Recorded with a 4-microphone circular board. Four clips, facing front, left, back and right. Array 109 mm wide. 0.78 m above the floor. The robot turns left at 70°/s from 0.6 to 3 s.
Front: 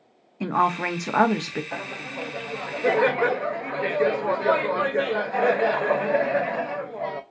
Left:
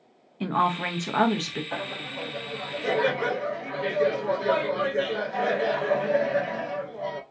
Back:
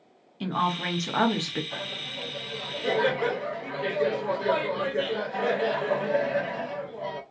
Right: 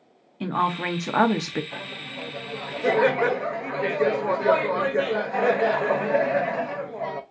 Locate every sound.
0.4 s a woman speaking: 5° left, 0.6 m; by 1.6 s 70° right, 0.6 m
1.7 s laughter: 50° left, 0.6 m; by 7.2 s 40° right, 0.6 m